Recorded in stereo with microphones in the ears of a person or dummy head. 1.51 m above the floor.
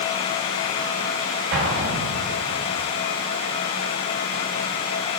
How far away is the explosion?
About 1.4 m.